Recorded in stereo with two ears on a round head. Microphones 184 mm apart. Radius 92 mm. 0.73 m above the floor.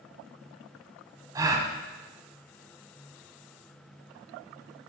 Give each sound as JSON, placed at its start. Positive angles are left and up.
{"t": 1.4, "sound": "a gasp", "side_deg": -20, "distance_m": 0.6}